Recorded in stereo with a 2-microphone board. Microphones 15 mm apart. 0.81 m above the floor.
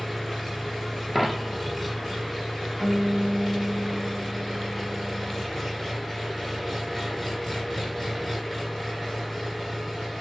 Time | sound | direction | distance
0.0 | an engine running | 10° left (ahead or behind) | 2.5 m
1.1 | a dropped coin | centre (ahead or behind) | 1.1 m
2.8 | a guitar | 35° left (ahead or behind) | 2 m